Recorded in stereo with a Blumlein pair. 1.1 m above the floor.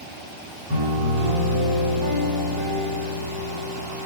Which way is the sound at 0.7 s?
45° right.